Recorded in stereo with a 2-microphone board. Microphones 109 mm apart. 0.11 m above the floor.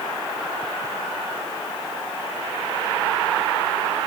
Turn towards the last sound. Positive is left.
No sound to turn to.